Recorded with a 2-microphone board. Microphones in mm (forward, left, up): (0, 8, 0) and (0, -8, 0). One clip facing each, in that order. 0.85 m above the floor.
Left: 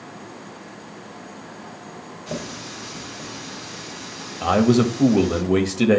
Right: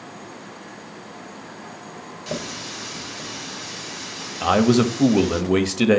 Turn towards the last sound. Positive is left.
turn(degrees=-30)  # may be behind; listen again after turning